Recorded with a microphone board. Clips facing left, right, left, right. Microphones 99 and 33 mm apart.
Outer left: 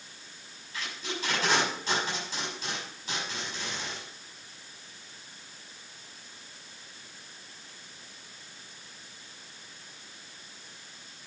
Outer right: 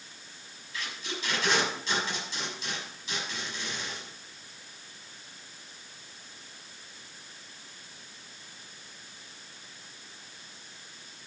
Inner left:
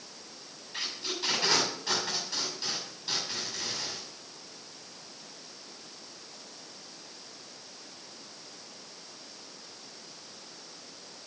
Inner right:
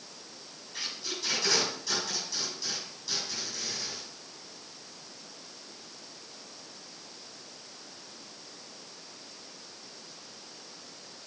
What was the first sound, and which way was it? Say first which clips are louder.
Tape being pulled: outer left 1 dB, inner left 2 dB; 50° left (ahead or behind).